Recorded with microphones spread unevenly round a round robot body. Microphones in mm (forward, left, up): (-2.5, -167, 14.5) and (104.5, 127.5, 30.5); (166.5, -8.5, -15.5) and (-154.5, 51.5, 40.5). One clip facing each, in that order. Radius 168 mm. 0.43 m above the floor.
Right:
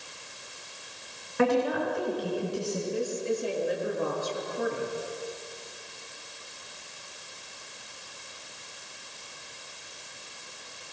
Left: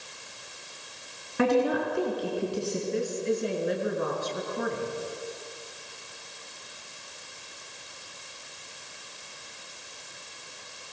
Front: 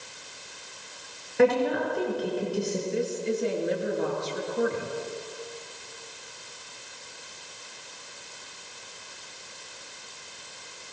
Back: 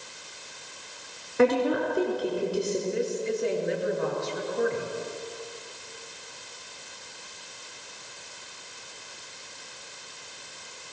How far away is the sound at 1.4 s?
About 5.5 m.